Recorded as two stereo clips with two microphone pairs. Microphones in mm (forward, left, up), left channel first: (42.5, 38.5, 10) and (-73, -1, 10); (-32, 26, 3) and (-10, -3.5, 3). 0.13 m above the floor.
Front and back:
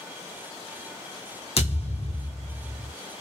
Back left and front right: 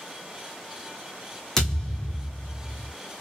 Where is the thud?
50° left, 1.3 m.